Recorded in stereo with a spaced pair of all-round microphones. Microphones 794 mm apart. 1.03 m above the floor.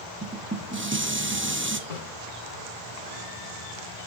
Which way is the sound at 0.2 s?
15° right (ahead or behind).